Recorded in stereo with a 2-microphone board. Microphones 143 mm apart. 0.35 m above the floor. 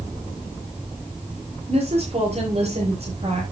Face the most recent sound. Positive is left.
turn(degrees=-45)  # may be behind; listen again after turning